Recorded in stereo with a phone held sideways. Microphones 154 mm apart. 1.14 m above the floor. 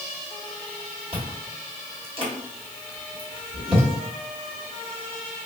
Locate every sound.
1.1 s chewing: 35° right (ahead or behind), 1.2 m